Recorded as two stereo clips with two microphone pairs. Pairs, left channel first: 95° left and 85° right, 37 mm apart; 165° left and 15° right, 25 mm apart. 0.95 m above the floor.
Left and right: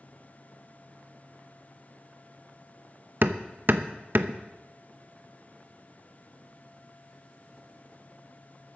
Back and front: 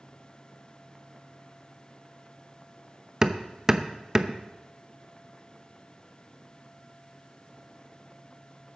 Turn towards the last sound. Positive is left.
turn(degrees=-80)